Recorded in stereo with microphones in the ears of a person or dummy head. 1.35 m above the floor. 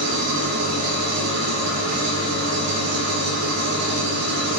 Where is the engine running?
80° right, 1.9 m.